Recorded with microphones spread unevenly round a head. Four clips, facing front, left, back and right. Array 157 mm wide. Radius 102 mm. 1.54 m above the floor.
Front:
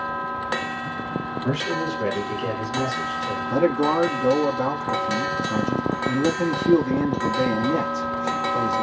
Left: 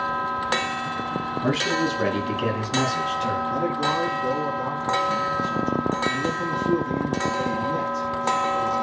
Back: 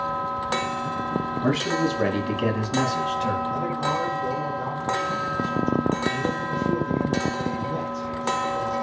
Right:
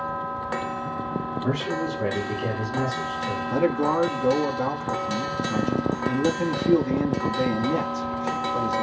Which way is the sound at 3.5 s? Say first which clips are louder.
Right 2 dB, front 6 dB; 20° right.